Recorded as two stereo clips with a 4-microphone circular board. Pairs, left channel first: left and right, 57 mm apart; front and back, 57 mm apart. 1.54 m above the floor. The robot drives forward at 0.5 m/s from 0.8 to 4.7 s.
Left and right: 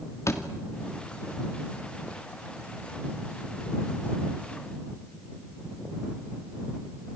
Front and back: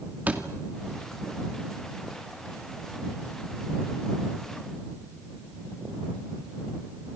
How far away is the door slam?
About 2.5 m.